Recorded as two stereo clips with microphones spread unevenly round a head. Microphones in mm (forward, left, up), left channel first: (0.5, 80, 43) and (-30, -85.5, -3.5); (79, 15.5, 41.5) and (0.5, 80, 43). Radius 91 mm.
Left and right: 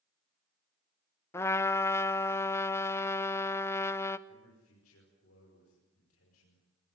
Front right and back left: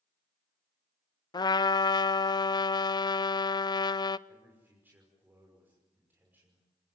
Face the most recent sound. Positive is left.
turn(degrees=70)